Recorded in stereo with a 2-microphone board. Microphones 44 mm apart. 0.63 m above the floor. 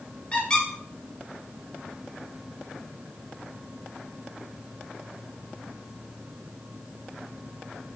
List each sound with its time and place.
0.3 s a squeak: 25° left (ahead or behind), 1.2 m